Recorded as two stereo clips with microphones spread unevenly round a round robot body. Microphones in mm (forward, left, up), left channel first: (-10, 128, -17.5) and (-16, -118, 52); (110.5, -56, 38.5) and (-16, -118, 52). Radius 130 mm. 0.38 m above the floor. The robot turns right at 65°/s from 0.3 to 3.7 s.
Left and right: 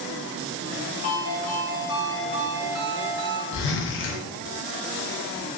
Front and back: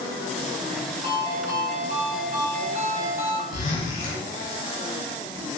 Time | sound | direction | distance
1.0 | a ringtone | 135° left | 1.5 m
3.5 | a zipper | 60° left | 1.3 m